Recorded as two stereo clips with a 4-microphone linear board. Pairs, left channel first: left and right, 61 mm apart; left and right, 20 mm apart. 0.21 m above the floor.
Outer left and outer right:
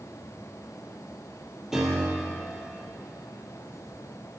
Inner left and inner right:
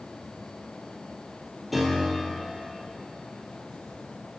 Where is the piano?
5° right (ahead or behind), 3 m.